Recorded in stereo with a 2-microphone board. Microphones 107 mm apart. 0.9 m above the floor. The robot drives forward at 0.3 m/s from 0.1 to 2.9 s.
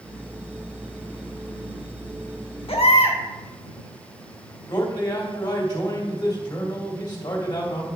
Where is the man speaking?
40° left (ahead or behind), 2 m.